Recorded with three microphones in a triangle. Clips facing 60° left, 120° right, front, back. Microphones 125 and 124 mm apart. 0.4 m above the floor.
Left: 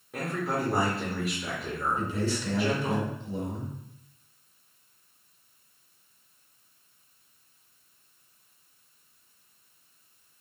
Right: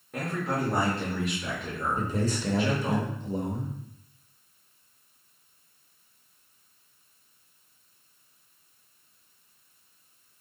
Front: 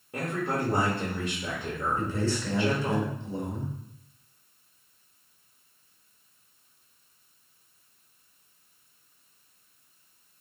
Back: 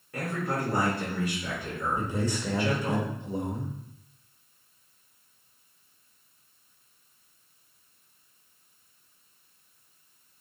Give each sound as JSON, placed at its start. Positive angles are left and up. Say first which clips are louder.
{"t": 0.1, "sound": "a man speaking", "louder": "even, front 1 dB", "azimuth_deg": -25, "distance_m": 1.1}
{"t": 2.0, "sound": "a man speaking", "louder": "right 1 dB, front 1 dB", "azimuth_deg": -115, "distance_m": 0.9}